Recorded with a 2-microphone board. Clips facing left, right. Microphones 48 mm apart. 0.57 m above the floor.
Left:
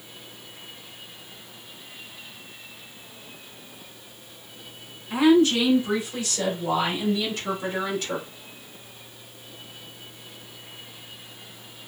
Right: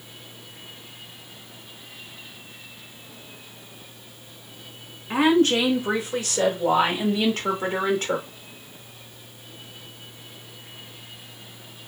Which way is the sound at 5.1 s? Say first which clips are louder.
Left 1 dB; 60° right (ahead or behind).